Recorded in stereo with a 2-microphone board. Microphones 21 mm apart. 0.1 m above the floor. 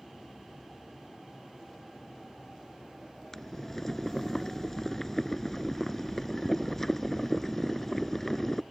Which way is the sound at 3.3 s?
20° left (ahead or behind).